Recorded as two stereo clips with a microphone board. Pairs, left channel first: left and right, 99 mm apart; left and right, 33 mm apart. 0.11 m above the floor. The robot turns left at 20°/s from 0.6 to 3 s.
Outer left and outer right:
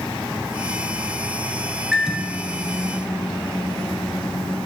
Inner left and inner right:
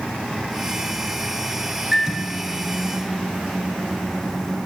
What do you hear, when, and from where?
1.9 s a microwave: 5° right (ahead or behind), 1.2 m; by 4.6 s 5° left (ahead or behind), 1.2 m